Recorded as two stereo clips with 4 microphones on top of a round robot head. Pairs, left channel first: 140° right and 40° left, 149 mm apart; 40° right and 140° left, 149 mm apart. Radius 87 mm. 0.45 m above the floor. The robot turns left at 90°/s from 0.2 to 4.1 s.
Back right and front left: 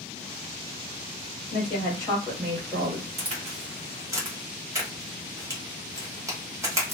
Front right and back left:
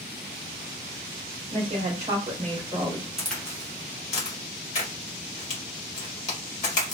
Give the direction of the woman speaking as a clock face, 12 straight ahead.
5 o'clock.